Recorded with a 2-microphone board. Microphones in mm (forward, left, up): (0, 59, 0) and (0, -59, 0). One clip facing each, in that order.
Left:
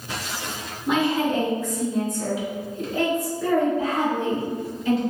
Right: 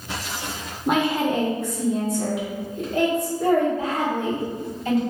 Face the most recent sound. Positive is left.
turn(degrees=-60)  # may be behind; listen again after turning